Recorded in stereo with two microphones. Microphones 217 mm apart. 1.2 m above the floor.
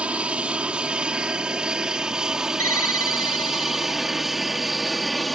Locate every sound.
0.0 s an aircraft: 5° right (ahead or behind); by 5.4 s centre (ahead or behind)
2.6 s a ringtone: 85° left